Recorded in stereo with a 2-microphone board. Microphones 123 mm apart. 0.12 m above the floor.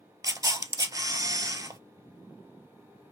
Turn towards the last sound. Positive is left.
turn(degrees=-30)  # may be behind; listen again after turning